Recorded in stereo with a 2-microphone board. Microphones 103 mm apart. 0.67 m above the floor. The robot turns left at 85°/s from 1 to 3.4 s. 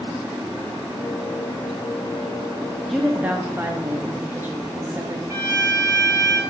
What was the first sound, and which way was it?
A woman speaking, 10° left.